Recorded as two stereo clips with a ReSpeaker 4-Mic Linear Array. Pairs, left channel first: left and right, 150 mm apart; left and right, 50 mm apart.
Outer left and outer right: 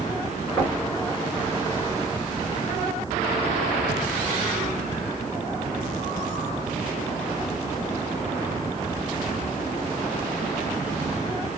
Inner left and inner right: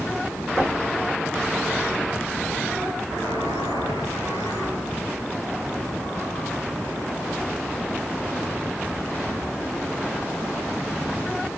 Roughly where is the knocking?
Left.